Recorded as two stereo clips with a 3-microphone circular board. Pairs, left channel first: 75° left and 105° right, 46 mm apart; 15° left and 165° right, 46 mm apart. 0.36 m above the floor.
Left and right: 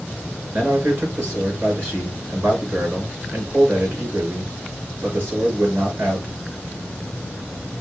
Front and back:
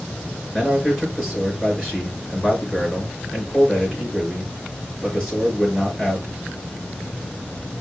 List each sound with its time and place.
0.5 s a man speaking: 75° right, 4 m